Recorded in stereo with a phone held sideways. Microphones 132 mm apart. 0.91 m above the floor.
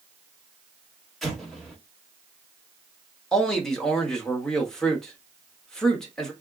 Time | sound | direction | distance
1.2 | an explosion | centre (ahead or behind) | 1.2 m
3.3 | a man speaking | 5° left (ahead or behind) | 1.1 m